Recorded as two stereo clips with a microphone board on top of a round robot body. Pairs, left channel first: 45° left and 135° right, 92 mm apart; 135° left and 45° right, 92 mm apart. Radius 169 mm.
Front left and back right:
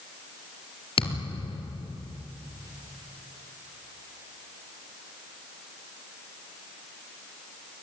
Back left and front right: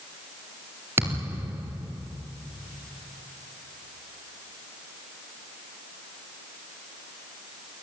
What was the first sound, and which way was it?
A thud, 20° left.